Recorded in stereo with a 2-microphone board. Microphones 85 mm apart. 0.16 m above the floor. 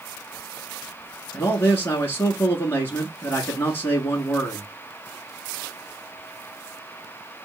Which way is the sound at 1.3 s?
25° left (ahead or behind).